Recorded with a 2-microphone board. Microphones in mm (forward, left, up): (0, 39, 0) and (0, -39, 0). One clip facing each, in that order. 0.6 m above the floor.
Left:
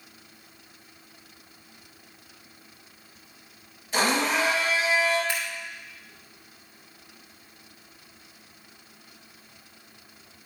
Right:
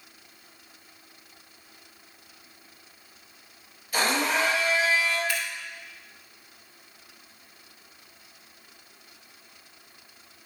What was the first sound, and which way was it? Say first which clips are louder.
A blender: left 1 dB; 25° left (ahead or behind).